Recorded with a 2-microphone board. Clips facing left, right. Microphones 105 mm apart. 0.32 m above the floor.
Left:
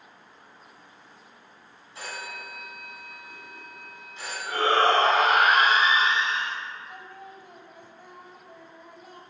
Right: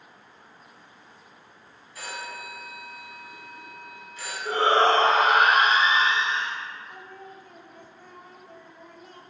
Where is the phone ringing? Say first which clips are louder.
Right 1 dB; 25° left (ahead or behind), 1.9 m.